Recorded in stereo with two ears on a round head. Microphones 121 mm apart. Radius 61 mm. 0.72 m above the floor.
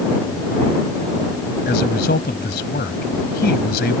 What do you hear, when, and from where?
1.6 s a man speaking: 85° left